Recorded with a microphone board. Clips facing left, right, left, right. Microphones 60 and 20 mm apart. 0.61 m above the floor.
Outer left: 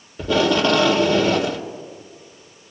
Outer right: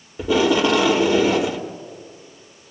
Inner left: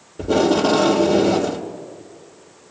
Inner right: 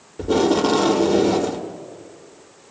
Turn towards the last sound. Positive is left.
turn(degrees=-15)  # may be behind; listen again after turning